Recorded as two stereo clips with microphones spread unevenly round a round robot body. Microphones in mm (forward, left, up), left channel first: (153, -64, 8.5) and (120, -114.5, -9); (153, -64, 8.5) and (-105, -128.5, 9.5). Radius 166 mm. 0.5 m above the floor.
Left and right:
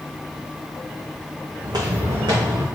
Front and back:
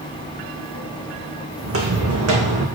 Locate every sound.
1.6 s footsteps: 130° right, 2 m; by 2.6 s 145° right, 2.0 m